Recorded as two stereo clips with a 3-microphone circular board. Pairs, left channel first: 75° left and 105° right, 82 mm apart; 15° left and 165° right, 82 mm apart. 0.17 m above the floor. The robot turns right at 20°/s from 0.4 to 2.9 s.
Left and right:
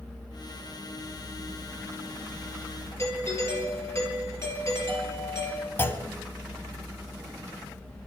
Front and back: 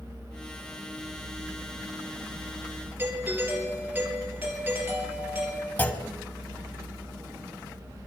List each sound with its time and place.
3.0 s a doorbell: 130° left, 4 m
5.8 s a clunk: 55° left, 1.0 m